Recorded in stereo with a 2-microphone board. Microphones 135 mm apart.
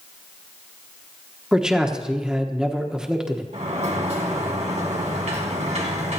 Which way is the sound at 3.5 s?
65° right (ahead or behind).